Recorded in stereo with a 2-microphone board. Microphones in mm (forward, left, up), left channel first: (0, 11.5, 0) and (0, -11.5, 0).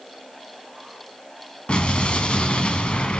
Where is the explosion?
55° left (ahead or behind), 3 m.